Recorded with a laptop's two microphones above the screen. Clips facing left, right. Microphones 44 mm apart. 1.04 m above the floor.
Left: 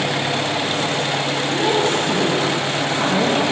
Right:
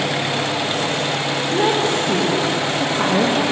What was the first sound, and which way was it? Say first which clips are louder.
A woman speaking: right 1 dB; 35° right (ahead or behind).